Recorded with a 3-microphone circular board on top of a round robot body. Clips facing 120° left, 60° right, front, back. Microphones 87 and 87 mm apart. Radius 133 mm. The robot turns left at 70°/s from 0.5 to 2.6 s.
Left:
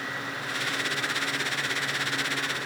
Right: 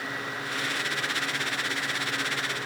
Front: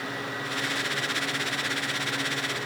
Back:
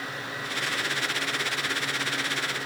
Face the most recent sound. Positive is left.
No sound to turn to.